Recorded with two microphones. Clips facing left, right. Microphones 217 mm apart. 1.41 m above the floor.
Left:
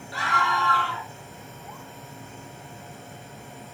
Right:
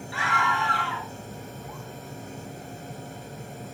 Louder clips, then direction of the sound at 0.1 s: Left 1 dB; 40° left (ahead or behind).